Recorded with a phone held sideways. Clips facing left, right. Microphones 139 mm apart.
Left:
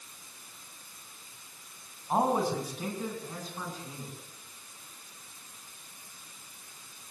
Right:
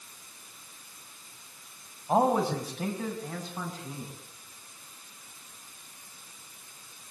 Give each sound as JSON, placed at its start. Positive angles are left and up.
{"t": 2.1, "sound": "a man speaking", "side_deg": -75, "distance_m": 5.5}